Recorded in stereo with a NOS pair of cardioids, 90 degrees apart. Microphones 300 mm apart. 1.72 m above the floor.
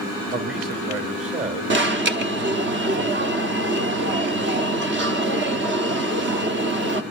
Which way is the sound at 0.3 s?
40° right.